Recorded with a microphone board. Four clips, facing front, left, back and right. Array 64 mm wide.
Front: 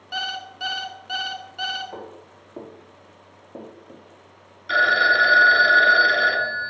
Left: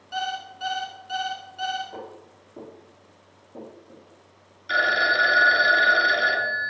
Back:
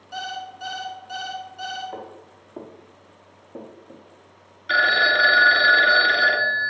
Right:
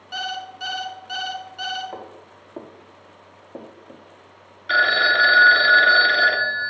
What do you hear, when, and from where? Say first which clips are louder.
0.1 s an alarm clock: even, front 2 dB; 20° right, 0.7 m
1.9 s footsteps: right 2 dB, back 1 dB; 85° right, 3.5 m; by 4.0 s 80° right, 2.5 m
4.7 s a phone ringing: right 3 dB, front 1 dB; 115° right, 0.8 m